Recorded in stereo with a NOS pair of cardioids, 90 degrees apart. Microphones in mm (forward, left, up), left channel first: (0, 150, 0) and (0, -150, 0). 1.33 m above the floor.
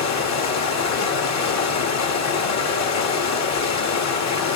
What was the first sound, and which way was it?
Running water, 60° left.